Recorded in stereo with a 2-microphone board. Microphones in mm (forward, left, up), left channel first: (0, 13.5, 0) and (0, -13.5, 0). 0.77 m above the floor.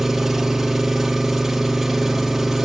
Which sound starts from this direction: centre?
An engine running, at 0.0 s.